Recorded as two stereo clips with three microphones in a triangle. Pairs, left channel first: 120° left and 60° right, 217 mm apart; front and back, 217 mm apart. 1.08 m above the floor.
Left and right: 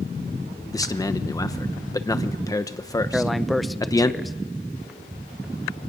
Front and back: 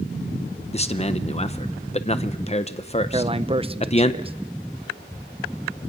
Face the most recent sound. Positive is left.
turn(degrees=-150)